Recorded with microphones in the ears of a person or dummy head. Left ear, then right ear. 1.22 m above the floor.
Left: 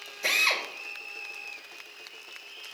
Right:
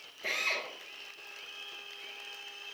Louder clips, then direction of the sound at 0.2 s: Left 8 dB; 75° left (ahead or behind).